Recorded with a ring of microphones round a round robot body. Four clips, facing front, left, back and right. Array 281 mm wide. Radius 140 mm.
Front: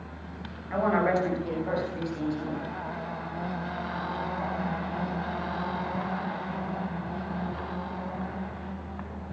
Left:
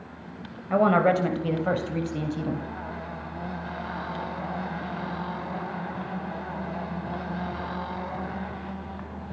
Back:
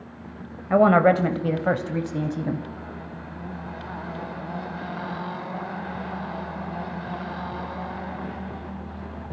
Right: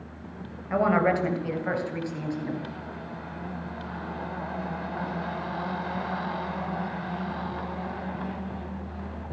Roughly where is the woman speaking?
Behind.